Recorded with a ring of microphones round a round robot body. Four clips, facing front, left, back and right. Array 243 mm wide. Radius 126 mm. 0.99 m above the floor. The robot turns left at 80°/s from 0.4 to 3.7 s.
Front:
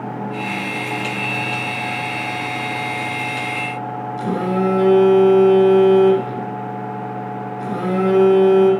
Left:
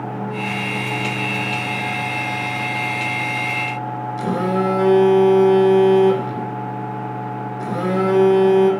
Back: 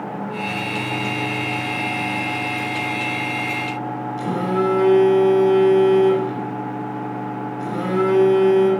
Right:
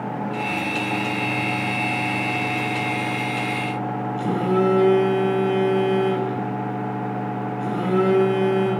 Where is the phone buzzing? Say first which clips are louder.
Left 1 dB, front 1 dB; 90° left, 4.5 m.